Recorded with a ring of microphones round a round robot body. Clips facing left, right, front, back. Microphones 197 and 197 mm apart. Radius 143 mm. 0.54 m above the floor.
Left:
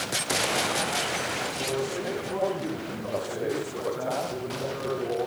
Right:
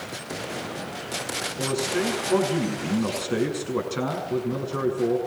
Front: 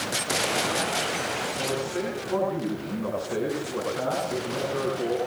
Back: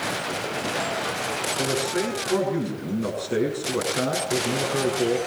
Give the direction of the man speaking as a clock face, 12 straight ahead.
4 o'clock.